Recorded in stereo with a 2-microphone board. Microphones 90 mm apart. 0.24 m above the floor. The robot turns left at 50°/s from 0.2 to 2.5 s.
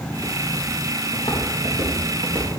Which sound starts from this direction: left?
Footsteps, at 1.1 s.